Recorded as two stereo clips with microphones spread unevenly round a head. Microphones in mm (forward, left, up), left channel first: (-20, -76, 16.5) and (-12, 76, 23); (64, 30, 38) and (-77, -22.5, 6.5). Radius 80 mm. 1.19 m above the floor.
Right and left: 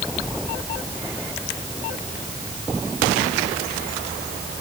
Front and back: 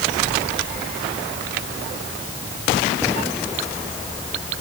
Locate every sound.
Only background noise.